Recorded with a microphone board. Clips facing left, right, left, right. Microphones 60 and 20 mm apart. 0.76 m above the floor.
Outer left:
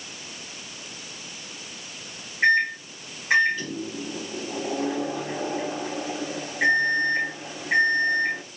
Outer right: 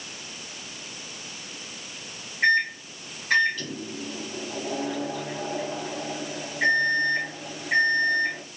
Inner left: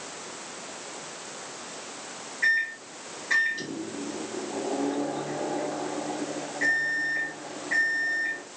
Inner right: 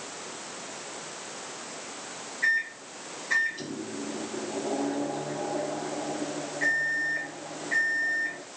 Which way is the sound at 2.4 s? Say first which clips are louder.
Outer left 2 dB, inner left 2 dB; 20° left (ahead or behind).